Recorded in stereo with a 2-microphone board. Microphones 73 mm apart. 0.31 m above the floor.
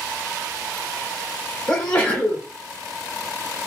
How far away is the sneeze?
About 0.9 m.